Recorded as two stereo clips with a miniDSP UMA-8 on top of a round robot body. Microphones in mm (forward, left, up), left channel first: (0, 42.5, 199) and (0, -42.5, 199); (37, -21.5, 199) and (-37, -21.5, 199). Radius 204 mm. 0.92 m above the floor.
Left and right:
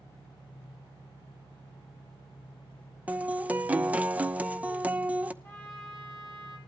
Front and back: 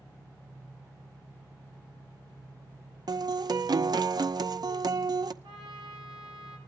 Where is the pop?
No pop in this recording.